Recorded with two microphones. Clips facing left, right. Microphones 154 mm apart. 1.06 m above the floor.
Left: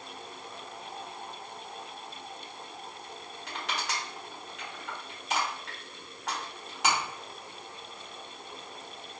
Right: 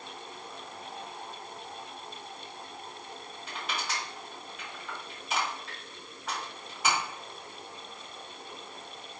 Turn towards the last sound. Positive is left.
turn(degrees=85)